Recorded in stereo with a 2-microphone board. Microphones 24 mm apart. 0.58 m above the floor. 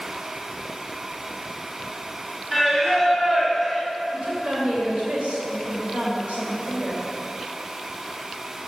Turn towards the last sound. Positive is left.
turn(degrees=-65)  # may be behind; listen again after turning